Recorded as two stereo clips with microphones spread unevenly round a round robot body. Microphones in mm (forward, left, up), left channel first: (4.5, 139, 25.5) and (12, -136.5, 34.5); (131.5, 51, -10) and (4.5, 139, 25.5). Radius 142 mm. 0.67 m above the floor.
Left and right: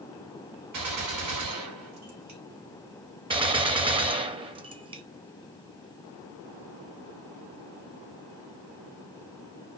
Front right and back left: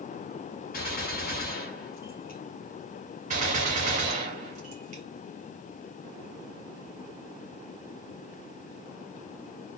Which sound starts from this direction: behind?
A gunshot, at 3.3 s.